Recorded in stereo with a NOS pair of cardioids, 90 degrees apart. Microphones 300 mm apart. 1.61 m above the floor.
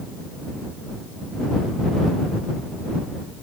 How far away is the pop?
I don't hear a pop.